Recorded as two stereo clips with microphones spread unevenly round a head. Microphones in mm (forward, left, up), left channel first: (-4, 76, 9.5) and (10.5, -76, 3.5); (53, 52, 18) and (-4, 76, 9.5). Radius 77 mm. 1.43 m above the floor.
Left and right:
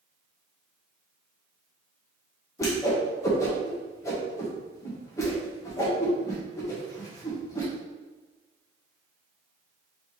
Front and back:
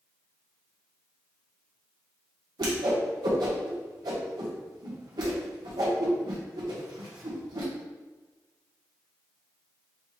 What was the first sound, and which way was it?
A whoosh, 165° left.